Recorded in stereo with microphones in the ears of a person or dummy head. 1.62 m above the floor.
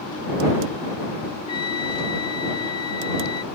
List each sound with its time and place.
1.5 s a trumpet: 20° left (ahead or behind)